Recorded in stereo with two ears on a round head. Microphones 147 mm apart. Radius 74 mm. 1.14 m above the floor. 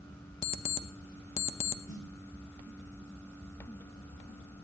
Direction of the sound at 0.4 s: 40° left (ahead or behind).